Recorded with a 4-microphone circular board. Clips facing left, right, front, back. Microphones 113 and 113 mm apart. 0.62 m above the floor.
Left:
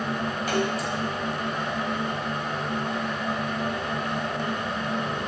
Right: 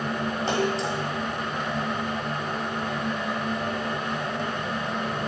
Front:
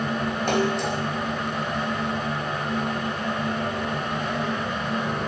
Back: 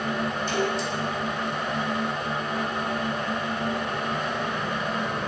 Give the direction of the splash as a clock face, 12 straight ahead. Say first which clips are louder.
Right 1 dB, front 6 dB; 1 o'clock.